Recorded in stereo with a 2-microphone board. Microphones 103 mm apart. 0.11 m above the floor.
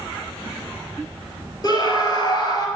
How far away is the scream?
About 1.8 m.